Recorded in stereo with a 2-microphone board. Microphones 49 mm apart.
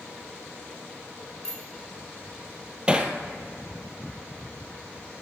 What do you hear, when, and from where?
1.4 s a bicycle bell: 15° left (ahead or behind), 3 m
2.9 s hammering: 20° right (ahead or behind), 1.4 m